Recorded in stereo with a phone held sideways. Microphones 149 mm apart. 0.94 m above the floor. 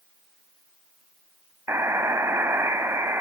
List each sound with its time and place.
1.7 s a buzzer: 20° right (ahead or behind), 1.0 m